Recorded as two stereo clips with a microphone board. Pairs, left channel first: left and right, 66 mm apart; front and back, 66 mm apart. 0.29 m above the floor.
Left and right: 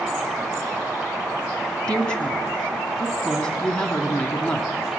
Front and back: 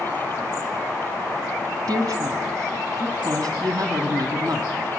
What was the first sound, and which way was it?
A woman speaking, 165° left.